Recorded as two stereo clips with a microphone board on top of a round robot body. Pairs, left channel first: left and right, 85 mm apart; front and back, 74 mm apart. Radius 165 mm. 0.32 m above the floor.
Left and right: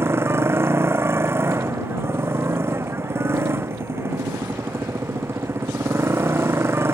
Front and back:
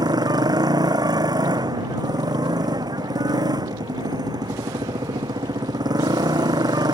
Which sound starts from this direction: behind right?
A motorcycle, at 0.0 s.